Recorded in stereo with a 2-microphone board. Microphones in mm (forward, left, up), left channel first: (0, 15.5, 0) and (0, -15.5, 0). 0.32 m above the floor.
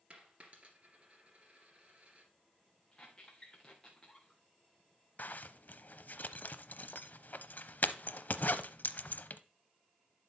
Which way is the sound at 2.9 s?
25° left (ahead or behind).